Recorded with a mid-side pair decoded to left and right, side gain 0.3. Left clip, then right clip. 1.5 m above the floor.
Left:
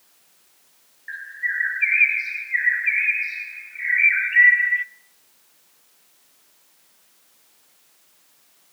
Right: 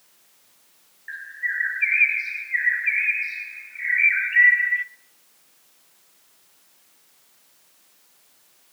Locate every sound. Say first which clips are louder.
1.1 s a bird: left 1 dB; 15° left, 1.3 m